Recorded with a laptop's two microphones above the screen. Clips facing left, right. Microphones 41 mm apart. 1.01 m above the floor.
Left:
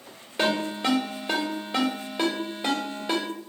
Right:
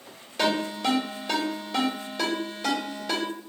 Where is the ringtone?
20° left (ahead or behind), 1.3 m.